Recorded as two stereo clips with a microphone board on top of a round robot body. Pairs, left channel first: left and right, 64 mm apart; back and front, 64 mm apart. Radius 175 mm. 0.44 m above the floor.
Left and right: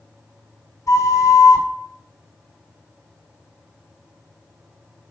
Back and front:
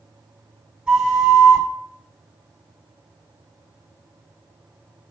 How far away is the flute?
About 1.9 m.